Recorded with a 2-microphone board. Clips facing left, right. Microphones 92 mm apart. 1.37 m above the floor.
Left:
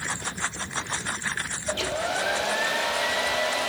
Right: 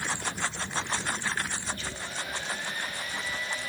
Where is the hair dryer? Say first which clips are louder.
Left 10 dB; 80° left, 1.4 m.